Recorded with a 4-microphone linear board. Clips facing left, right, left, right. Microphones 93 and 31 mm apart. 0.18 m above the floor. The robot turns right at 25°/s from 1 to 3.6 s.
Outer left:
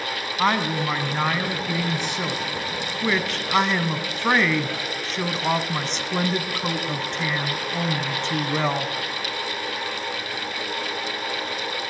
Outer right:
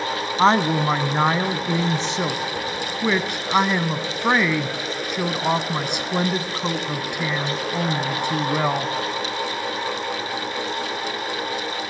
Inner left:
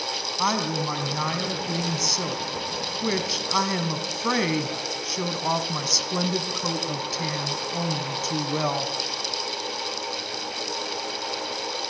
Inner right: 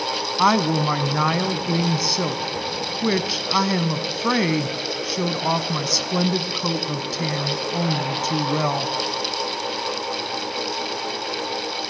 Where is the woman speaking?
25° right (ahead or behind), 1.2 m; by 8.9 s 10° right (ahead or behind), 1.2 m.